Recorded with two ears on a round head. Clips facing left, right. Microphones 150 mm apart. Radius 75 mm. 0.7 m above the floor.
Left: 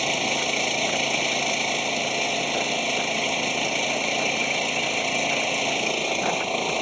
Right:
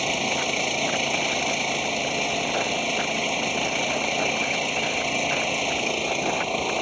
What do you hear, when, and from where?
0.0 s an engine running: centre (ahead or behind)